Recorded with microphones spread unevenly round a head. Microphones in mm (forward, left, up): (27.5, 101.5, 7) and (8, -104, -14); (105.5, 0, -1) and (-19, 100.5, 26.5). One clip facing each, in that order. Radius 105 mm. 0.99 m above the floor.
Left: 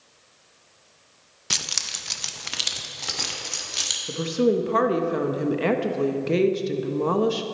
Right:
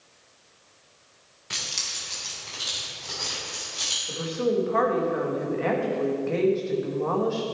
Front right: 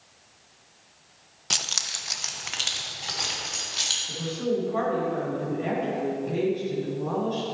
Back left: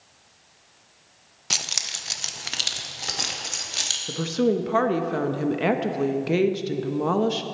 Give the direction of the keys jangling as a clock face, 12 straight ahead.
10 o'clock.